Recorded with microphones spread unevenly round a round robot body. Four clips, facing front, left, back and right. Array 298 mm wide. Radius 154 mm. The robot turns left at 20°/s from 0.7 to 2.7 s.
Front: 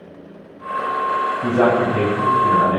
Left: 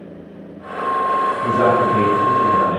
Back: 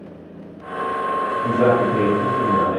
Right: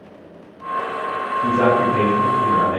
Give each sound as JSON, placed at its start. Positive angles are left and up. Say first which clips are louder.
{"t": 1.4, "sound": "a man speaking", "louder": "right 1 dB, even", "azimuth_deg": 5, "distance_m": 4.5}